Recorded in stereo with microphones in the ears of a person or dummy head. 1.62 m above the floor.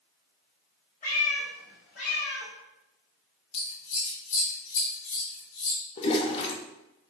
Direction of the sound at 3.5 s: 70° left (ahead or behind).